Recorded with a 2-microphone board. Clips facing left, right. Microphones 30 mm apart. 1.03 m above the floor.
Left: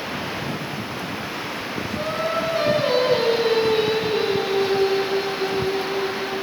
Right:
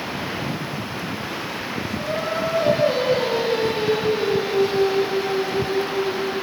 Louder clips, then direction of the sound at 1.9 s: Left 1 dB; 75° left (ahead or behind).